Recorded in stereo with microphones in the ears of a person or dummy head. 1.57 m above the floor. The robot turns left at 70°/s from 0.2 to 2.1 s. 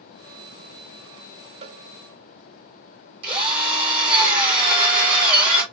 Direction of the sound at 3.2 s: 30° right (ahead or behind).